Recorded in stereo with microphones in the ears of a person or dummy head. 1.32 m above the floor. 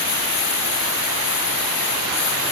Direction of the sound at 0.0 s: 85° left.